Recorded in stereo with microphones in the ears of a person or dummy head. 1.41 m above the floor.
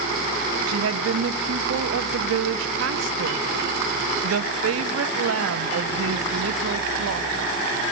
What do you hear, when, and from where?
0.7 s a woman speaking: 85° right, 0.9 m